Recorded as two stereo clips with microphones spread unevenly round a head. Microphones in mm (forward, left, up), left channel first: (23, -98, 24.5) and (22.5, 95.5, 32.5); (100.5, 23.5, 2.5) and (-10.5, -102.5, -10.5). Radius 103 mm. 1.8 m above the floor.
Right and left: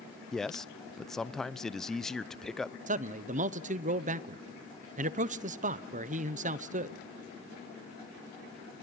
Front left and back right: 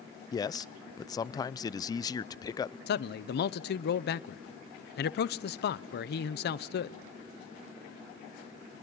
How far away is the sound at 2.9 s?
About 0.9 m.